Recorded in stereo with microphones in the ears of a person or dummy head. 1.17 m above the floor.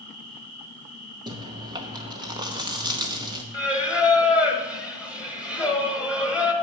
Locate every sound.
0.0 s an insect: 50° right (ahead or behind), 2.5 m
1.3 s chewing: 20° right (ahead or behind), 0.8 m
3.5 s singing: 10° right (ahead or behind), 1.1 m